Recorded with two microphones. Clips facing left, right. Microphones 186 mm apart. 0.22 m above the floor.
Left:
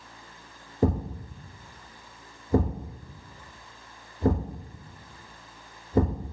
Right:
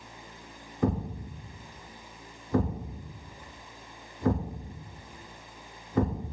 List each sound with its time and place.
0.8 s a thud: 35° left (ahead or behind), 1.1 m